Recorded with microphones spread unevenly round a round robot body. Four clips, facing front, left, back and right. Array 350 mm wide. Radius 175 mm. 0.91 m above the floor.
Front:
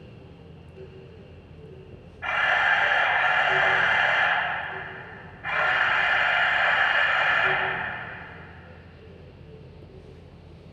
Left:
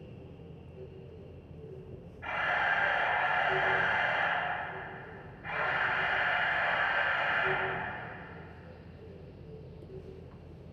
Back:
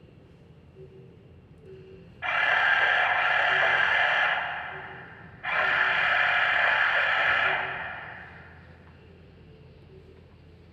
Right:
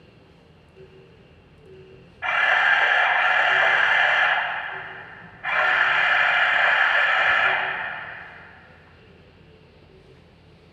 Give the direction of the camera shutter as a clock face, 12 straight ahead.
3 o'clock.